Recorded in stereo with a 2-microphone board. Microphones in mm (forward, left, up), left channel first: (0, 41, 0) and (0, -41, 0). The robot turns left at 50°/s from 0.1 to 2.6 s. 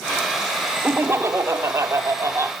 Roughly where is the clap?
No clap in this recording.